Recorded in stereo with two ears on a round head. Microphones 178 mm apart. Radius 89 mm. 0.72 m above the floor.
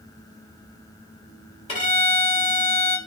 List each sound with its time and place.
1.7 s a violin: 30° left (ahead or behind), 1.4 m